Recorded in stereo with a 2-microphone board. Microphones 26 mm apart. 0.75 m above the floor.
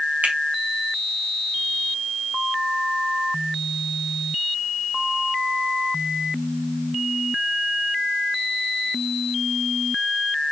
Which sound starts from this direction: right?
A finger snap, at 0.2 s.